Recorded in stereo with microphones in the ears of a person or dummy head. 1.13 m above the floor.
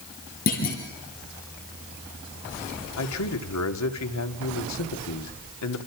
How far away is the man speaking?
About 2 m.